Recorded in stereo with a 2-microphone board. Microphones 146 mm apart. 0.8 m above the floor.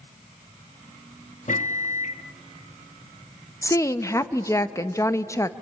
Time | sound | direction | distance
1.5 | a microwave | 60° left (ahead or behind) | 0.8 m
3.6 | a woman speaking | 20° left (ahead or behind) | 0.6 m